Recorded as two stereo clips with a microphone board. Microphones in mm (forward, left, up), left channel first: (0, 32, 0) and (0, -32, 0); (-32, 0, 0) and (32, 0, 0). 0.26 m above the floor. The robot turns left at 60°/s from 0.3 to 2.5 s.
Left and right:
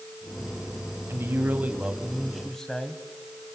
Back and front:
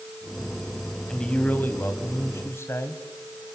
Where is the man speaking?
105° right, 2 m; by 3.0 s 170° left, 2 m.